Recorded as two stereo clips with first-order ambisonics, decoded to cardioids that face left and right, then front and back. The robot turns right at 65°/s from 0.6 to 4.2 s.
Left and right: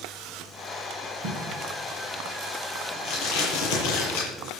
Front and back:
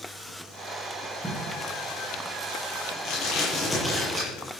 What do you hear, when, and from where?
1.2 s tape being pulled: 85° right, 8.5 m; by 4.3 s 105° left, 8.5 m